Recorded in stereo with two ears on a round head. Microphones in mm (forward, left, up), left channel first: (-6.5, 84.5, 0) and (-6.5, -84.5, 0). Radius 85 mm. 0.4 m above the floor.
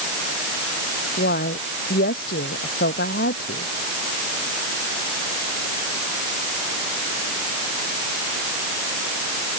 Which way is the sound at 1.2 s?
55° left (ahead or behind).